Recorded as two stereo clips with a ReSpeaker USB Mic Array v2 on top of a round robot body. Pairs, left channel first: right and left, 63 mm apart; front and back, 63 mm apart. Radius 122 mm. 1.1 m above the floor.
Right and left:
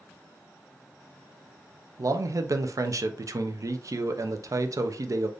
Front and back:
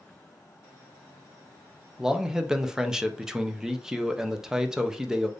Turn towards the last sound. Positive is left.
turn(degrees=100)